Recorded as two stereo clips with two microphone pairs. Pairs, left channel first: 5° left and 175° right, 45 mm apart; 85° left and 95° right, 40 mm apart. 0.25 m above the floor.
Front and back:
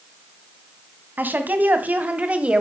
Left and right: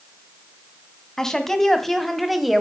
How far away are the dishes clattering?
No dishes clattering in this recording.